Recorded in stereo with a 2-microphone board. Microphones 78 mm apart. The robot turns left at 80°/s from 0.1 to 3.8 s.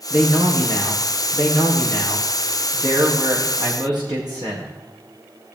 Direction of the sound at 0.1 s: Straight behind.